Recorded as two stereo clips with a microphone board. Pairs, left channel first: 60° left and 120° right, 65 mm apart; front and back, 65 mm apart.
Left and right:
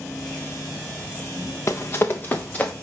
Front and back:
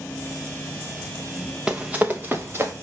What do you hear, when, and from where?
1.7 s running footsteps: 105° left, 0.9 m; by 2.7 s 130° left, 1.3 m